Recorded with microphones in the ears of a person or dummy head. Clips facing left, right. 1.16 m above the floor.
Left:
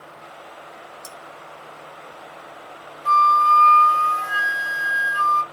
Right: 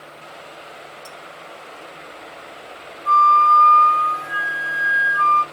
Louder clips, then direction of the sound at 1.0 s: Right 1 dB; 75° left (ahead or behind).